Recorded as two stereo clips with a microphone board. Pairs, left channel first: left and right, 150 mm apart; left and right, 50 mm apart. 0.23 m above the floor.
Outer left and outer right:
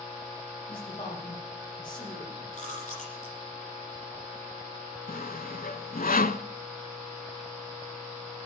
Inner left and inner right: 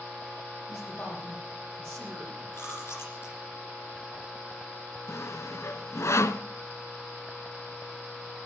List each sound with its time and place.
0.7 s a man speaking: 35° left (ahead or behind), 8.5 m; by 2.5 s 25° left (ahead or behind), 10 m
2.5 s chewing: 50° left (ahead or behind), 8.5 m
5.1 s sawing: 75° left (ahead or behind), 0.7 m